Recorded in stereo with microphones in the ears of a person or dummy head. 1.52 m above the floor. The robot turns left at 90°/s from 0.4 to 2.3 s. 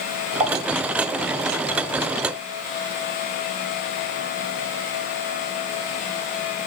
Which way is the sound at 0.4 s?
30° right (ahead or behind).